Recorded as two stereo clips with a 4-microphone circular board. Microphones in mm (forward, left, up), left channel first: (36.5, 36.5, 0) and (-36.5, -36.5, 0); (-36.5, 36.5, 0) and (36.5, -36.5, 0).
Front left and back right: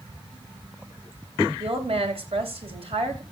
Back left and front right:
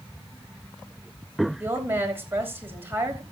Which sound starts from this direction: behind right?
A woman speaking, at 1.6 s.